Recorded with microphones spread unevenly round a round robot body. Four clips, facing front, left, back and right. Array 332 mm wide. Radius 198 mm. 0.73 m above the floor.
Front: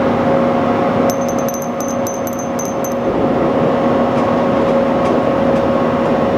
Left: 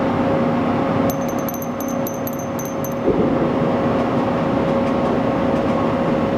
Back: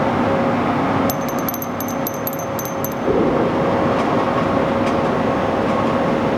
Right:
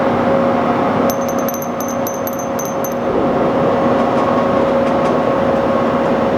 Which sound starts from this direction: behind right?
A bell, at 1.1 s.